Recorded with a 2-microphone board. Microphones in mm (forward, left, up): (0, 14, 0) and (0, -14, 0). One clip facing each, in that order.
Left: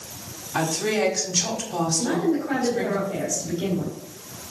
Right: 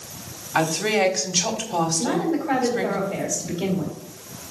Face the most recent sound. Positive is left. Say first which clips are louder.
# even
turn(degrees=-25)  # may be behind; listen again after turning